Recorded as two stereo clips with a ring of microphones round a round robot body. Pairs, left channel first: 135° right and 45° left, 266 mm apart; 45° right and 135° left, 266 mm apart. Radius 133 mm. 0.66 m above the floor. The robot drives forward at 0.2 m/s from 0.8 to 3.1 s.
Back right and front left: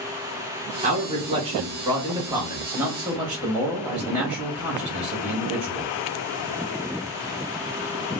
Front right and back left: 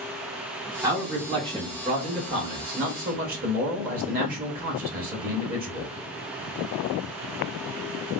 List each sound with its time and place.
0.8 s a man speaking: 70° left, 0.9 m; by 5.9 s 130° left, 1.0 m